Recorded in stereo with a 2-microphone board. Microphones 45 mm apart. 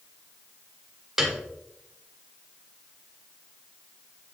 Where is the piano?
10° right (ahead or behind), 1.2 m.